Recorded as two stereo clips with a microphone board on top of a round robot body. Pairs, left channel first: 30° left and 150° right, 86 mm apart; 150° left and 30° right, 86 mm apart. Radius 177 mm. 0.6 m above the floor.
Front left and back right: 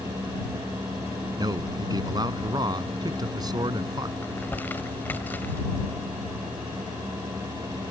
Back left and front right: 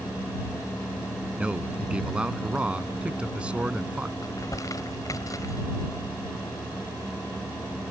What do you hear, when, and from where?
1.4 s a man speaking: 110° right
4.2 s crumpling: 100° left